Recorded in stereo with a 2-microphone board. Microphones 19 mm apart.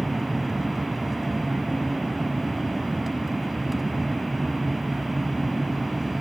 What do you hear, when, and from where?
0.0 s an aircraft: 5° right (ahead or behind)